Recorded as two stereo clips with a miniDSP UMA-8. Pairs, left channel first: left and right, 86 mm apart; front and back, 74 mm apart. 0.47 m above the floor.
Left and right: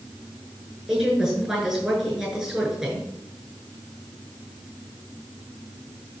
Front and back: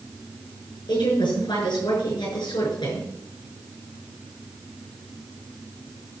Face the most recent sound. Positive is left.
turn(degrees=-10)